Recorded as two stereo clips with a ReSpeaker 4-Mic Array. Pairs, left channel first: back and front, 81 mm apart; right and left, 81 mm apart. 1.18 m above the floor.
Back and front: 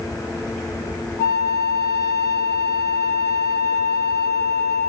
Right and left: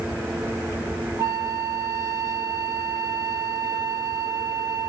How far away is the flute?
About 0.9 m.